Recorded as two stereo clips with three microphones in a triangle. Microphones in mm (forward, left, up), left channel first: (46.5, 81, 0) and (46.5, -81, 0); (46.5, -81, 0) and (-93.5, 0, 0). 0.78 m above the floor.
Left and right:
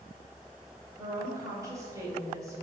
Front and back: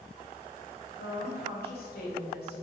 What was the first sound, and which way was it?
A woman speaking, 20° right.